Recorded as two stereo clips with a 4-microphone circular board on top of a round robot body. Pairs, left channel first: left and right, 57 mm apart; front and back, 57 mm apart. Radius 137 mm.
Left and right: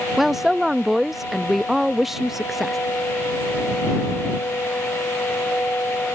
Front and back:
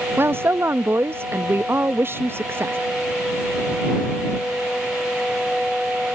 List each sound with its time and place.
0.2 s a woman speaking: 175° right